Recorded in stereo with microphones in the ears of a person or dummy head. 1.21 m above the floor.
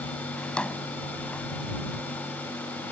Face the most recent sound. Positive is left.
turn(degrees=15)  # may be behind; listen again after turning